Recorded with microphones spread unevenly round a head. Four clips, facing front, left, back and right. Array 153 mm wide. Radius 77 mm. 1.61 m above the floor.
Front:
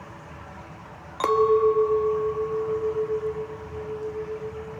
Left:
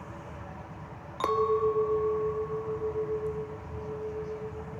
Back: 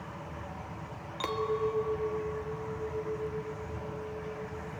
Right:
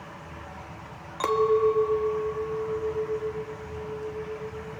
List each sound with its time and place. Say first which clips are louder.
1.2 s a clink: right 4 dB, front 12 dB; 10° right, 0.8 m